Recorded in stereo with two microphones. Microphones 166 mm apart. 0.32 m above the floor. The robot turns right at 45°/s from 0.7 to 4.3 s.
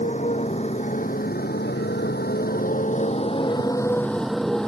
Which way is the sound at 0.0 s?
50° left (ahead or behind).